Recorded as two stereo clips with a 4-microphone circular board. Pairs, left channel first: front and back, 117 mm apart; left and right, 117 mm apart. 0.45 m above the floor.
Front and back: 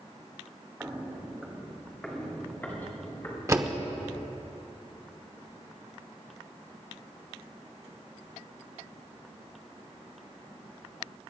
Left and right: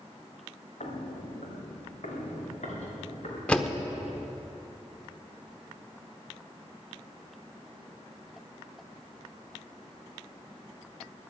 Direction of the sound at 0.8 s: 105° left.